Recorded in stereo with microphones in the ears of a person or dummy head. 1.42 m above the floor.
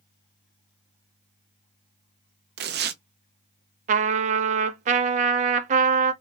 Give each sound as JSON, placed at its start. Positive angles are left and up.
{"t": 2.6, "sound": "tearing paper", "side_deg": -55, "distance_m": 0.6}
{"t": 3.9, "sound": "a trumpet", "side_deg": -40, "distance_m": 0.6}